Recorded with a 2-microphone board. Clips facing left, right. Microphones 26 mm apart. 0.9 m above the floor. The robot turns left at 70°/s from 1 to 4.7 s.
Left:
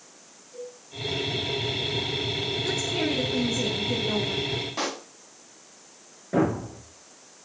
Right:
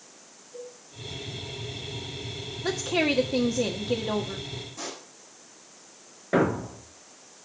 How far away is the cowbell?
About 5 m.